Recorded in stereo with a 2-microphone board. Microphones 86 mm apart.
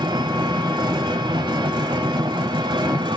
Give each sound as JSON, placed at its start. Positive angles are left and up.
{"t": 0.0, "sound": "an engine running", "side_deg": -60, "distance_m": 1.5}